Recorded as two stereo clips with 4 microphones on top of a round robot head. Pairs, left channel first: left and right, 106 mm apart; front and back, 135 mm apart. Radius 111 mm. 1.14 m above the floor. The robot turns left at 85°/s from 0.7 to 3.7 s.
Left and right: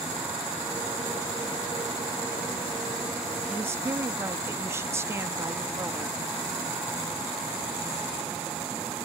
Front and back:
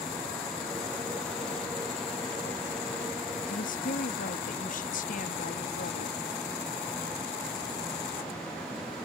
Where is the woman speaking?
5° right; by 6.2 s 25° right.